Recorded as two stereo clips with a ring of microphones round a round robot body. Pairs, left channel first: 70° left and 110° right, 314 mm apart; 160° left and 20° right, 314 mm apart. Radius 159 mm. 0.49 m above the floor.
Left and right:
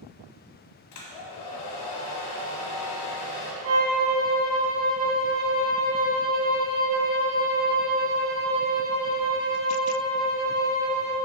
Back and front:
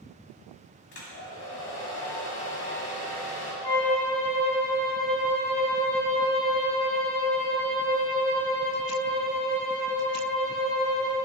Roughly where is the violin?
Behind right.